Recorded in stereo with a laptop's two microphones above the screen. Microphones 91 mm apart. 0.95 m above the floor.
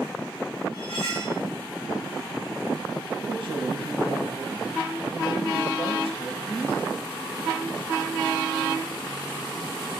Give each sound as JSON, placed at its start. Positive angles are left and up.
{"t": 0.7, "sound": "cutlery clinking", "side_deg": -85, "distance_m": 3.5}
{"t": 3.2, "sound": "a man speaking", "side_deg": -80, "distance_m": 4.5}